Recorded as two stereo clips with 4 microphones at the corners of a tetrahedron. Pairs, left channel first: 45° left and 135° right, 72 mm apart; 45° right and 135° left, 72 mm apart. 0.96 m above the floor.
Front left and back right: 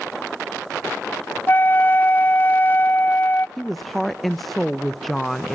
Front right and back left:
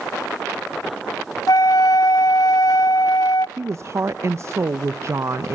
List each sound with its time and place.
1.5 s a flute: 15° right, 0.5 m
3.6 s a woman speaking: 135° left, 0.6 m